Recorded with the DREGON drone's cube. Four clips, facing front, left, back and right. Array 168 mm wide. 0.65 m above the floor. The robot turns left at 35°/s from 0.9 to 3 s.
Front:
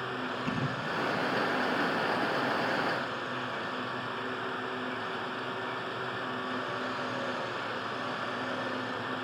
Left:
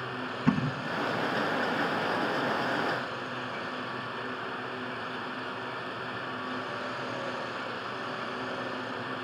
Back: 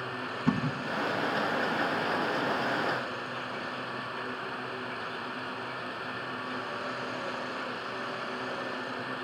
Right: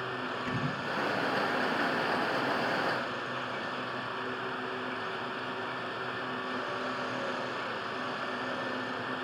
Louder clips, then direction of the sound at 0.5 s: Left 11 dB, back 8 dB; 115° left.